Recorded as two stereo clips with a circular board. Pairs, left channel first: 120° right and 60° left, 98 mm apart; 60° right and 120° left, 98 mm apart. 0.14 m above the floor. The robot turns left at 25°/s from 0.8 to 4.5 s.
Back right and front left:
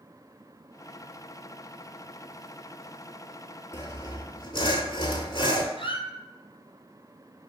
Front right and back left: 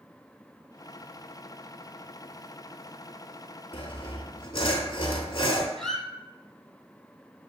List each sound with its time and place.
3.7 s sawing: 65° right, 0.8 m; by 5.7 s 85° right, 0.8 m
5.8 s a squeak: 145° right, 0.7 m